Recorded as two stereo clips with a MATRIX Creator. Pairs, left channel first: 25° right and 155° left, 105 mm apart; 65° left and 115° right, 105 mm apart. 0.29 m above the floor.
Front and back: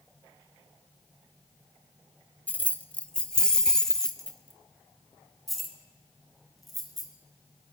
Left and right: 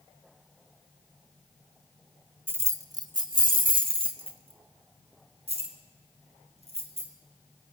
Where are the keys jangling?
75° right, 0.7 m; by 7.1 s 115° right, 2.5 m.